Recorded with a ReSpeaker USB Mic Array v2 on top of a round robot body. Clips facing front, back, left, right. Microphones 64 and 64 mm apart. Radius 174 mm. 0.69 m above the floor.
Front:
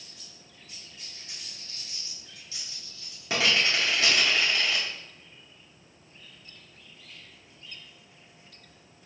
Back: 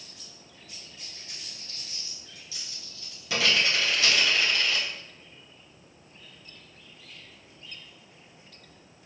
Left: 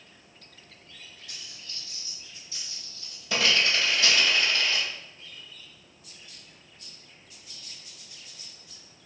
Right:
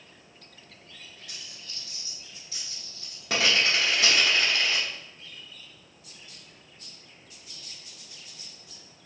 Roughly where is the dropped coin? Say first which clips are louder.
Back 1 dB, even; ahead right.